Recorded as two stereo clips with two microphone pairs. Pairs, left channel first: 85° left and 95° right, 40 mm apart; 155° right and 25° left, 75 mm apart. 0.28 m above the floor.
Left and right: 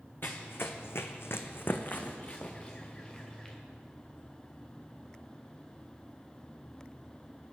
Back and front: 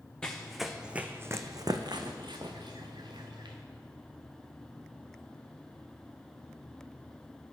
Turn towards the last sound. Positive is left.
turn(degrees=10)